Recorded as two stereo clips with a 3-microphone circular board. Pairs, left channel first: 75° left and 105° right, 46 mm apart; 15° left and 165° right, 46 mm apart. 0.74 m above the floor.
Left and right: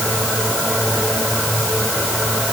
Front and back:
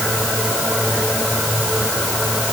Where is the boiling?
No boiling in this recording.